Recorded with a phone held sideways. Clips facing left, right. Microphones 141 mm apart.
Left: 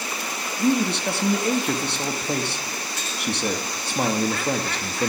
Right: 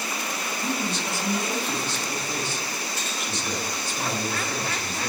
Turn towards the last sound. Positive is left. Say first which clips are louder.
# left 9 dB
turn(degrees=65)  # may be behind; listen again after turning